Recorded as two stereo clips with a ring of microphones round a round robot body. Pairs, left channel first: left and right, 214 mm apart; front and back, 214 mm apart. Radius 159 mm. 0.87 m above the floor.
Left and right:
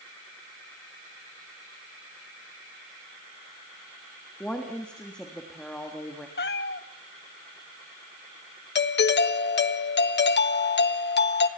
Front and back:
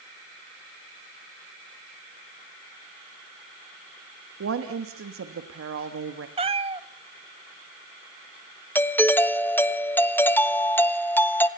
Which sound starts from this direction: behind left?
A cat meowing, at 6.4 s.